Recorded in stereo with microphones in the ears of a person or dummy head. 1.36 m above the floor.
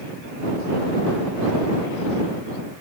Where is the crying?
No crying in this recording.